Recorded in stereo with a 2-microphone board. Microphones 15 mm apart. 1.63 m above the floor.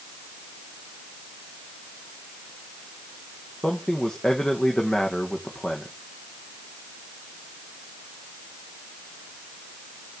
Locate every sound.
3.6 s a man speaking: 65° left (ahead or behind), 1.5 m